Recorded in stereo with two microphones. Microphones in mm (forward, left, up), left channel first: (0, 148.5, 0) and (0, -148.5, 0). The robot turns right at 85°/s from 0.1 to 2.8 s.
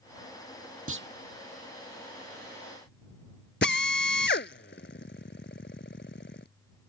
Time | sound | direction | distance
0.9 | a clunk | 50° right (ahead or behind) | ?
3.6 | a drill | 40° left (ahead or behind) | ?